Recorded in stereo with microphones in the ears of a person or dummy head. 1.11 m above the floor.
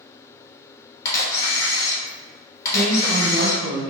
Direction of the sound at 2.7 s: 10° left (ahead or behind).